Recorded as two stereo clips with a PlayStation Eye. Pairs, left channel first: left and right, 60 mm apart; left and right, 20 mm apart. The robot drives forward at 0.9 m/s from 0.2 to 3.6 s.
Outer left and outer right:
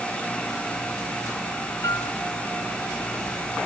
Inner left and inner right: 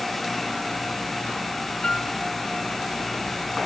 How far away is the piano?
About 2.5 m.